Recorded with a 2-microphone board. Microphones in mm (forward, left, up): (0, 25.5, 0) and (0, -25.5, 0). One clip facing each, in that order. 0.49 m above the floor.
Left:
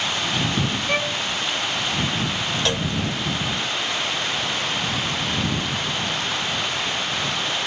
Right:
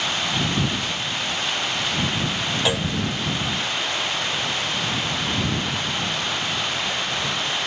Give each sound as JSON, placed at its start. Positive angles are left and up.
{"t": 0.9, "sound": "a violin", "side_deg": 80}
{"t": 2.6, "sound": "a clunk", "side_deg": -10}